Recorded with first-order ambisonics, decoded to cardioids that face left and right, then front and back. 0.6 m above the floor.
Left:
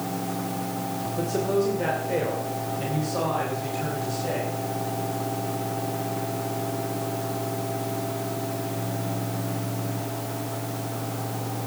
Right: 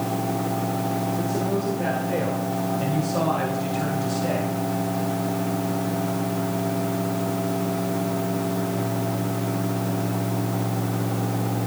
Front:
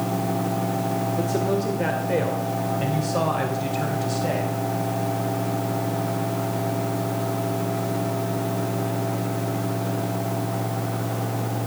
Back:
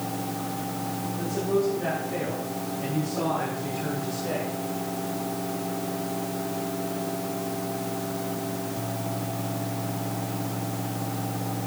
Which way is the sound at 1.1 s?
25° left.